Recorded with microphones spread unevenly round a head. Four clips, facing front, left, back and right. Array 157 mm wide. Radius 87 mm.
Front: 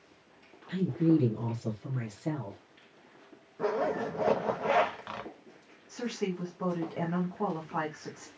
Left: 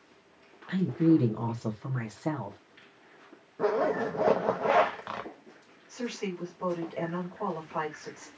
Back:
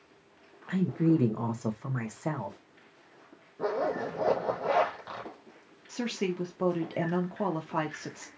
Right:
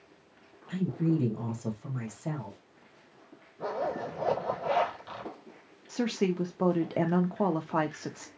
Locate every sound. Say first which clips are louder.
0.7 s a woman speaking: left 6 dB, even; 140° left, 1.2 m
3.6 s a zipper: left 6 dB, even; 95° left, 0.9 m
5.9 s a woman speaking: right 6 dB, back 2 dB; 115° right, 1.2 m